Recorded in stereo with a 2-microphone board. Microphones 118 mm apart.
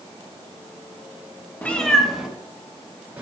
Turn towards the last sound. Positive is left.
turn(degrees=-15)  # may be behind; listen again after turning